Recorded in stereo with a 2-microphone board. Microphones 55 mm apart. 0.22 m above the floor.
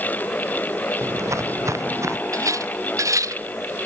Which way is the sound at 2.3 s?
80° right.